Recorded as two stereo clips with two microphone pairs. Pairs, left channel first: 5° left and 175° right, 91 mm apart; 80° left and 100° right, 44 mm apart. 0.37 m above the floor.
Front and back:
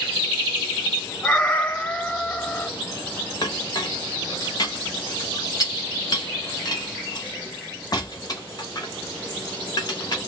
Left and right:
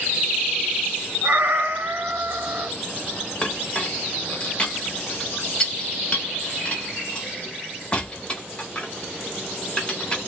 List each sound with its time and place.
1.2 s a cat meowing: 70° right, 0.8 m
3.4 s a clink: 30° left, 0.8 m